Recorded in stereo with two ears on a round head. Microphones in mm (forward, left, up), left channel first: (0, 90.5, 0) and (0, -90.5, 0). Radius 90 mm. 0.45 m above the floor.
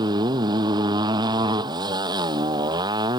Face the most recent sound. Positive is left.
turn(degrees=-20)  # may be behind; listen again after turning